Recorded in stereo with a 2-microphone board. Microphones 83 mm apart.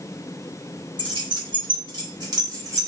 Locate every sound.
1.0 s keys jangling: 70° right (ahead or behind), 1.6 m; by 2.9 s 45° right (ahead or behind), 1.1 m